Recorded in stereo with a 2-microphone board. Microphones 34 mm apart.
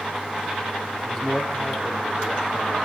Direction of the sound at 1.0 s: 25° left (ahead or behind).